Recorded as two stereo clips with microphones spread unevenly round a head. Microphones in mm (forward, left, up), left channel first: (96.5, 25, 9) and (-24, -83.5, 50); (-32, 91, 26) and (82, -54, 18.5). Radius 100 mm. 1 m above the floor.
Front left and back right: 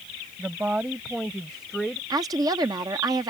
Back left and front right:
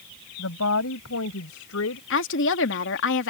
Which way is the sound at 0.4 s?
140° left.